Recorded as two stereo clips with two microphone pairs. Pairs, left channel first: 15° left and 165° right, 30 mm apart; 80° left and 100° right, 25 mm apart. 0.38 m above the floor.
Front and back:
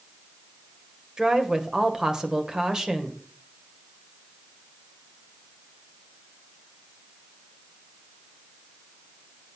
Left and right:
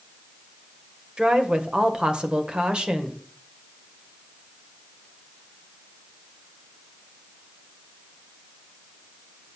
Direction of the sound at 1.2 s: 110° right.